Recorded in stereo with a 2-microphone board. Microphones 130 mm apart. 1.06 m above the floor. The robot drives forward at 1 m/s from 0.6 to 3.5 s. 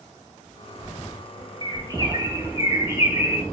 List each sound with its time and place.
1.6 s a bird: 35° right (ahead or behind), 1.9 m; by 3.4 s 20° right (ahead or behind), 3.5 m